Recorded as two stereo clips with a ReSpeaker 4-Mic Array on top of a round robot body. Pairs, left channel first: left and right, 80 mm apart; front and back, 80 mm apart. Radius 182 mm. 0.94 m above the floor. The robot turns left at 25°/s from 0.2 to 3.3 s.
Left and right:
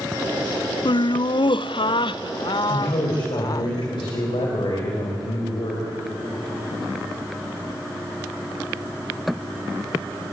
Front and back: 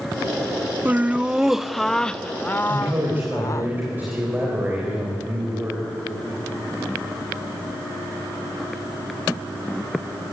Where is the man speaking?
125° left, 4 m; by 5.9 s 110° left, 4 m.